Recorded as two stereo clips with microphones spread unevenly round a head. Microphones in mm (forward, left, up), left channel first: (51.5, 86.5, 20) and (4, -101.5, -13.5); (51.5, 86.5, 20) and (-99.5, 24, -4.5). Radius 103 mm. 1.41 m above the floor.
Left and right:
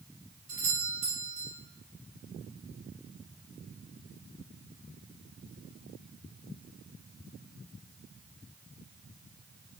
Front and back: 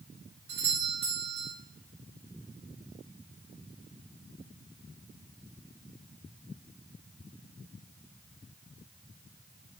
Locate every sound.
0.5 s a doorbell: 165° right, 5 m